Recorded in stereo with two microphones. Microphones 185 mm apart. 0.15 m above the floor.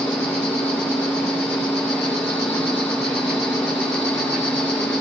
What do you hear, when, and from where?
0.0 s an insect: 5° left (ahead or behind), 8.5 m